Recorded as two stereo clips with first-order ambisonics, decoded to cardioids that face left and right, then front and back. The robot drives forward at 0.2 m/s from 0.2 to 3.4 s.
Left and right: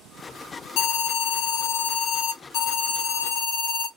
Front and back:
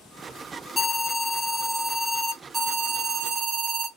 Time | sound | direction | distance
0.8 | an alarm | 75° left | 0.6 m